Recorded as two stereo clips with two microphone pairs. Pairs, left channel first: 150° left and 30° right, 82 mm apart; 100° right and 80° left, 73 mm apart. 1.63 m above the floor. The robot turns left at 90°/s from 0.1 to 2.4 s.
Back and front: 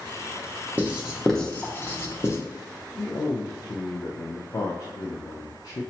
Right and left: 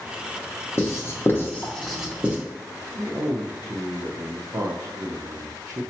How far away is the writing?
About 0.8 m.